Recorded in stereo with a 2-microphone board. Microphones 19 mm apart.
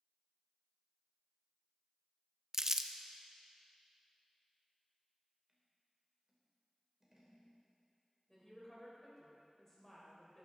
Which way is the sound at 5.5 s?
20° right (ahead or behind).